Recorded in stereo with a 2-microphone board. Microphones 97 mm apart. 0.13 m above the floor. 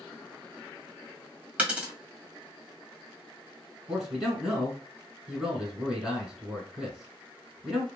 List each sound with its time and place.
1.6 s a dropped coin: 15° right (ahead or behind), 1.2 m
3.9 s a man speaking: 5° right (ahead or behind), 1.2 m